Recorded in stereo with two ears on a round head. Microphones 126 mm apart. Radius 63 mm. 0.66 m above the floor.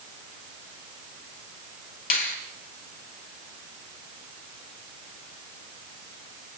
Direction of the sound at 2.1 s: 65° left (ahead or behind).